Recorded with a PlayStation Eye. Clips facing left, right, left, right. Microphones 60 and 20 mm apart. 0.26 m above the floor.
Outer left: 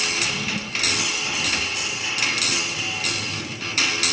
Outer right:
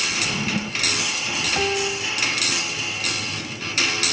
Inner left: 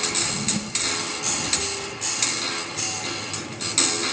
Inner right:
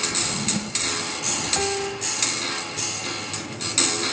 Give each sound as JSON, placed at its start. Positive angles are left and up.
{"t": 0.1, "sound": "a drawer", "side_deg": -20}
{"t": 1.6, "sound": "a piano", "side_deg": -70}